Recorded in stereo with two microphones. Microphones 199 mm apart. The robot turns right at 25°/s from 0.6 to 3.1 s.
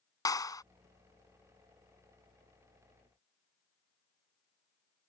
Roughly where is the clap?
Centre.